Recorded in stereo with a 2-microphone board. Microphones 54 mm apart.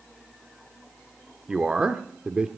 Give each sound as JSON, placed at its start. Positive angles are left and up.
{"t": 1.5, "sound": "a man speaking", "side_deg": -15, "distance_m": 0.9}